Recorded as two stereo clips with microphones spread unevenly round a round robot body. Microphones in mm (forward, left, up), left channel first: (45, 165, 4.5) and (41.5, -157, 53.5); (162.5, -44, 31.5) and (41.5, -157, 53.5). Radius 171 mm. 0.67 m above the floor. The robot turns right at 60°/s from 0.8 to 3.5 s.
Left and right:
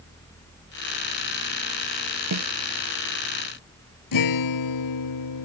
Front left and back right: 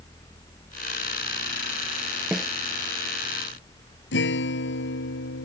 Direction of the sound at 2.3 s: 55° right.